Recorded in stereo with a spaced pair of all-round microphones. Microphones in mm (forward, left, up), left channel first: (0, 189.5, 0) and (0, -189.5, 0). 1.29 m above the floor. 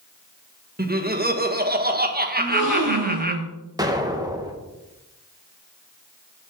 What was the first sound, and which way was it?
Laughter, 25° right (ahead or behind).